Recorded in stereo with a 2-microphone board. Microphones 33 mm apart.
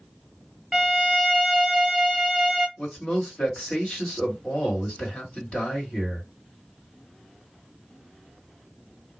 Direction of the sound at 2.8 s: 45° left (ahead or behind).